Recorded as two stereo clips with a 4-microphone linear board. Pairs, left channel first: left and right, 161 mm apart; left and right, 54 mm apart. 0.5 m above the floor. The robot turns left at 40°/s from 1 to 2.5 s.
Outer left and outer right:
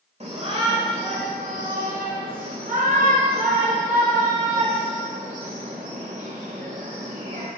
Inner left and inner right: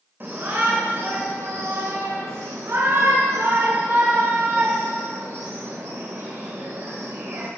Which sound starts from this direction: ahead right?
A shout, at 0.2 s.